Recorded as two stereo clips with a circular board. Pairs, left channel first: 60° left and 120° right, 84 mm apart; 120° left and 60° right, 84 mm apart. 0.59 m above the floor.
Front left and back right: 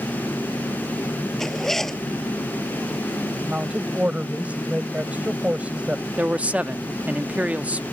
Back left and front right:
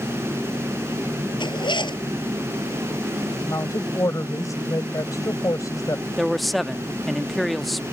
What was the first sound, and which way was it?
A zipper, 145° left.